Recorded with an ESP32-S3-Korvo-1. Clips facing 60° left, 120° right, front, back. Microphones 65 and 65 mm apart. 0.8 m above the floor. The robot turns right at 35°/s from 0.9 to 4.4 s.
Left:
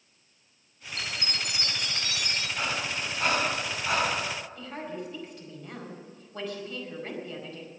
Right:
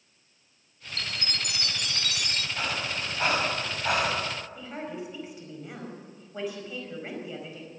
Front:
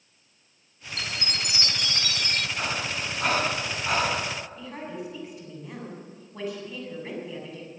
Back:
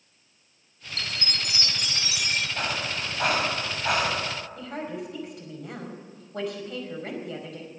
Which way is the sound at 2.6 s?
160° left.